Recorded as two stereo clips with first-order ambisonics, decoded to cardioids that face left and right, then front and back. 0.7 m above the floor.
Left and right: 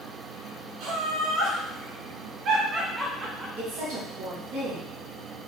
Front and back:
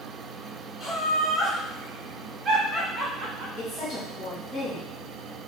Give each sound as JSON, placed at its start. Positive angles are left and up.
{"t": 0.8, "sound": "laughter", "azimuth_deg": -100, "distance_m": 1.8}
{"t": 3.6, "sound": "a woman speaking", "azimuth_deg": -65, "distance_m": 2.5}